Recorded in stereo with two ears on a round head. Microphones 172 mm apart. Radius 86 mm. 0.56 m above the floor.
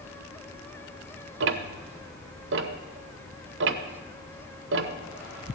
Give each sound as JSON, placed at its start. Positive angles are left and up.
{"t": 1.4, "sound": "ticking", "side_deg": -65, "distance_m": 0.7}